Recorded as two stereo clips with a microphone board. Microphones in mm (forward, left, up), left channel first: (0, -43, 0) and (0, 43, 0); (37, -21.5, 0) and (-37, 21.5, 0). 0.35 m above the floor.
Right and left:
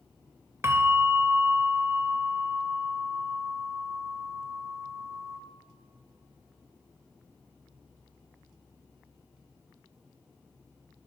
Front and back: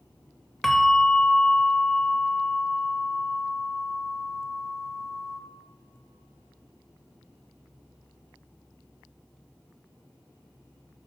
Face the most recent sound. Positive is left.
turn(degrees=55)